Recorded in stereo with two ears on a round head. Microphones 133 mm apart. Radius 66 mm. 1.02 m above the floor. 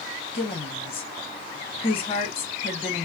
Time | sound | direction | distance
0.3 | a woman speaking | 40° left (ahead or behind) | 0.9 m